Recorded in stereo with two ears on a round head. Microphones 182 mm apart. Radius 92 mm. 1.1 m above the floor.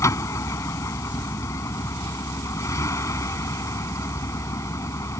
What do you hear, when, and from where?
0.0 s a vehicle: 15° left (ahead or behind)